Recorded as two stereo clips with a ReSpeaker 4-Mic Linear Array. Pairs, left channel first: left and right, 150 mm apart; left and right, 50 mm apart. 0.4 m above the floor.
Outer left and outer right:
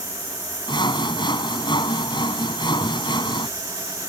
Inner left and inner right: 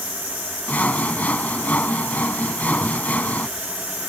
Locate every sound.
0.7 s sawing: 35° left (ahead or behind)